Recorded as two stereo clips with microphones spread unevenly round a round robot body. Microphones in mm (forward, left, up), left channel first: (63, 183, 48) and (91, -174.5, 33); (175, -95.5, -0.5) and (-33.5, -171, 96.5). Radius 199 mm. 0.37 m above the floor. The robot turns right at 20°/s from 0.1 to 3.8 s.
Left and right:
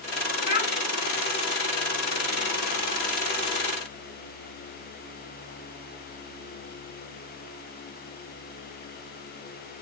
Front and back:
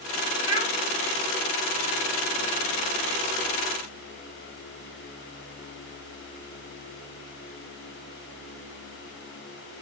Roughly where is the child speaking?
Left.